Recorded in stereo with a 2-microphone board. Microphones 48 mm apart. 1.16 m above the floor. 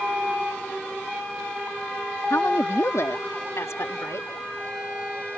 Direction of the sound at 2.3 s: 70° left (ahead or behind).